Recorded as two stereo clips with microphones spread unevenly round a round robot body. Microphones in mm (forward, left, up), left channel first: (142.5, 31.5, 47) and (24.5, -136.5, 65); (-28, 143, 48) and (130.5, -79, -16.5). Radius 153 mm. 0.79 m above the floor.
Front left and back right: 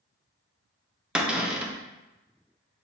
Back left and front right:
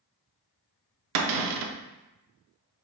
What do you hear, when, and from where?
1.1 s a cupboard door: 40° right, 0.5 m